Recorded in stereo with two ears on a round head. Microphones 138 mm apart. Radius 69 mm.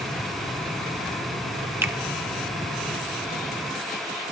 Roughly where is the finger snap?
Centre.